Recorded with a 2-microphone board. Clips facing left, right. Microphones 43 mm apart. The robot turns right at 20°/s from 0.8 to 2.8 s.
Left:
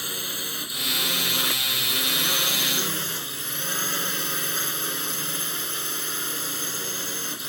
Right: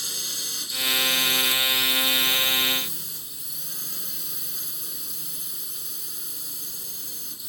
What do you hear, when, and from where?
0.0 s a drone: 30° left; by 7.5 s 70° left